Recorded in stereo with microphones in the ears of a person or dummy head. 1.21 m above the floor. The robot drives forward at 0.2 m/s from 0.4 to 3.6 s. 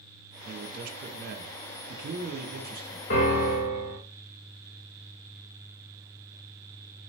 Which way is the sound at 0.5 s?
45° right (ahead or behind).